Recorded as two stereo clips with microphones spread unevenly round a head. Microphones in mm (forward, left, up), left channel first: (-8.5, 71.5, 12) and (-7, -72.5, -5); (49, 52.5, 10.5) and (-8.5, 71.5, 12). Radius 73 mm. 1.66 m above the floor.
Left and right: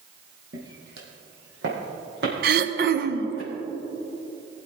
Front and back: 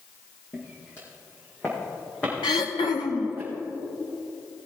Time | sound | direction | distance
0.5 | footsteps | 75° right | 3 m
2.4 | throat clearing | 60° right | 0.7 m